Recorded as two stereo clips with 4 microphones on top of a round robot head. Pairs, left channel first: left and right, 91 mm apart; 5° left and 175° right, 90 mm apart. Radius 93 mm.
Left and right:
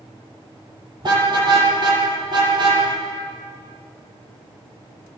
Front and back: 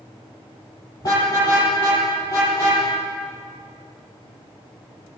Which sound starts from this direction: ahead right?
A car horn, at 1.0 s.